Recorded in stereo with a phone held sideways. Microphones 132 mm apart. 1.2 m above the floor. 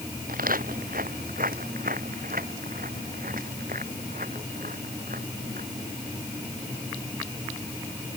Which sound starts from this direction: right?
Footsteps, at 0.3 s.